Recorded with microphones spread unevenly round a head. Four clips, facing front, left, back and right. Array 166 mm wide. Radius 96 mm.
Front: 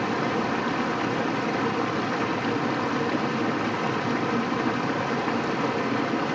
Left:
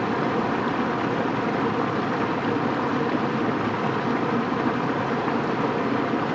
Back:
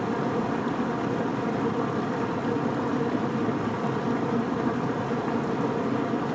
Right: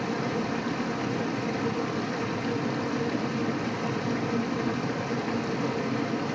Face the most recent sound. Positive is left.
turn(degrees=135)